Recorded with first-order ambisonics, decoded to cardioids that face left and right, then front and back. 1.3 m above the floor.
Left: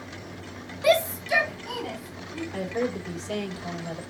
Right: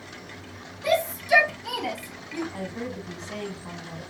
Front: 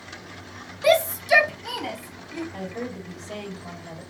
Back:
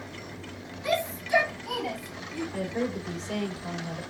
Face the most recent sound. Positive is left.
turn(degrees=110)